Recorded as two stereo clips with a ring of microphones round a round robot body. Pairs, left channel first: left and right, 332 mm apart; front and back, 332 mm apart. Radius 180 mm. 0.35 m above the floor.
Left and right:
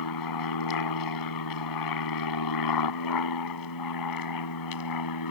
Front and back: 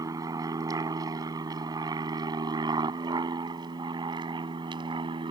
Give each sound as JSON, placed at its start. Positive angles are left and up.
{"t": 0.0, "sound": "an aircraft", "azimuth_deg": 100}